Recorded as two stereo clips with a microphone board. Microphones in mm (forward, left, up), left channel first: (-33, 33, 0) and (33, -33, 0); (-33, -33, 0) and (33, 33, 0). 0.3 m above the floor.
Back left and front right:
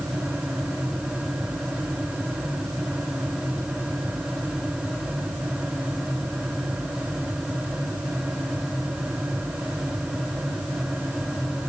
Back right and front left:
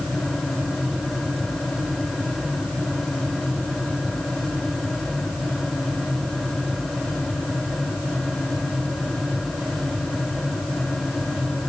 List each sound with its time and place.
Only background noise.